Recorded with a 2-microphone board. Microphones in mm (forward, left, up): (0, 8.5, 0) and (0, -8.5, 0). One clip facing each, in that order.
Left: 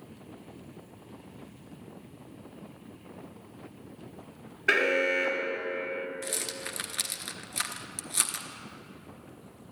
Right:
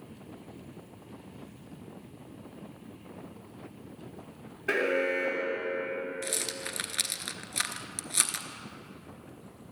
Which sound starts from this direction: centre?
A rattle, at 6.2 s.